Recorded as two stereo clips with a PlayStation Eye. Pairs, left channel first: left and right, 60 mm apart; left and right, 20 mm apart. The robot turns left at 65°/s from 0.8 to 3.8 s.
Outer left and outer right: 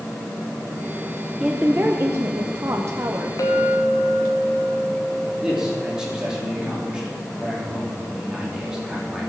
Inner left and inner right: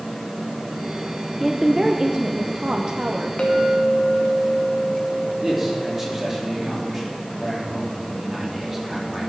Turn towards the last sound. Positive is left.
turn(degrees=-10)  # may be behind; listen again after turning